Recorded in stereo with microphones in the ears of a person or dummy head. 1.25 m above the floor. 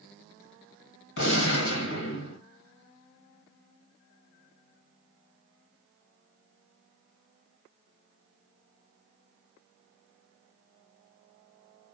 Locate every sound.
1.2 s a gunshot: 65° left (ahead or behind), 1.4 m